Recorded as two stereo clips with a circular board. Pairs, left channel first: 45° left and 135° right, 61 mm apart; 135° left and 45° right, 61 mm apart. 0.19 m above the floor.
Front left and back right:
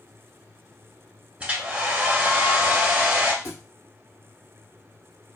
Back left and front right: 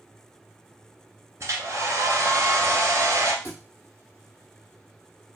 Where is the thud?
85° left, 2 m.